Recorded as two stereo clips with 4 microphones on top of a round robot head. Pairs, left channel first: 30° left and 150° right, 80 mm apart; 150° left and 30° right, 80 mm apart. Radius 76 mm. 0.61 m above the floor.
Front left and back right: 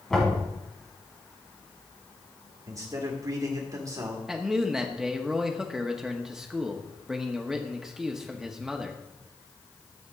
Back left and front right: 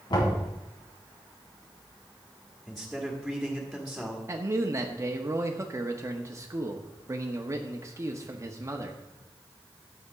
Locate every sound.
0.1 s knocking: 115° left, 5.5 m
2.7 s a man speaking: 125° right, 1.9 m
4.3 s a man speaking: 65° right, 1.1 m